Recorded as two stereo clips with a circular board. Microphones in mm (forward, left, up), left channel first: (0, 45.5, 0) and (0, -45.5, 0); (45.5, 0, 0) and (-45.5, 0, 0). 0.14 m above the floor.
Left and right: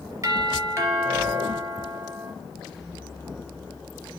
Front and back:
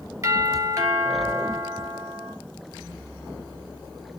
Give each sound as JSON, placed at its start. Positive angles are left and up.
{"t": 0.2, "sound": "a doorbell", "azimuth_deg": -140, "distance_m": 3.0}